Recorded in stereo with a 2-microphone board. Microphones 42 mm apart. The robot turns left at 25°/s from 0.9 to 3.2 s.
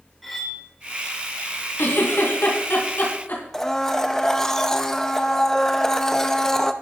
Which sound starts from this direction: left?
A giggle, at 1.8 s.